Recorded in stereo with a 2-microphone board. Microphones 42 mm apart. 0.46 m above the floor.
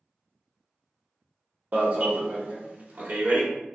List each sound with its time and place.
1.7 s an alarm: 45° right (ahead or behind), 1.0 m